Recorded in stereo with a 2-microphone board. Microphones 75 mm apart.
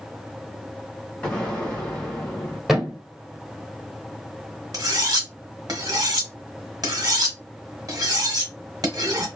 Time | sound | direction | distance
1.2 | an explosion | 10° left (ahead or behind) | 1.8 m
2.7 | a thud | 5° right (ahead or behind) | 1.2 m
4.7 | cutlery clinking | 55° right (ahead or behind) | 1.1 m